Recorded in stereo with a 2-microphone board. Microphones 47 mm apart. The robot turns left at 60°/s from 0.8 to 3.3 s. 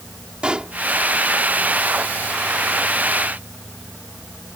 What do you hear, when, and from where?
0.4 s a pop: 20° right (ahead or behind)